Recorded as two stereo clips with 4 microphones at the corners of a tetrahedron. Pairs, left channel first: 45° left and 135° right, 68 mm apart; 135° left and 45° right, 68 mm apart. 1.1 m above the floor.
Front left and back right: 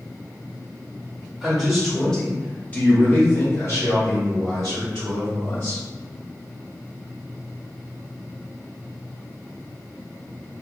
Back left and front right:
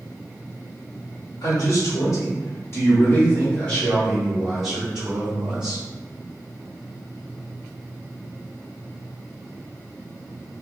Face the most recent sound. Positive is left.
turn(degrees=25)